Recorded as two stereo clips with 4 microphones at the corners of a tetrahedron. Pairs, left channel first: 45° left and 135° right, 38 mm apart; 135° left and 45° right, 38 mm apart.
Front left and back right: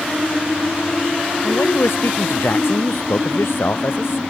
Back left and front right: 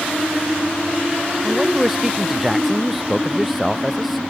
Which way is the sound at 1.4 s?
35° left.